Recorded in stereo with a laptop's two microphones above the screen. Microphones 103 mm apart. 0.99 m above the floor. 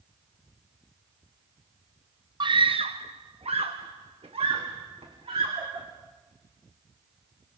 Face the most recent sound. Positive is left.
turn(degrees=-65)  # may be behind; listen again after turning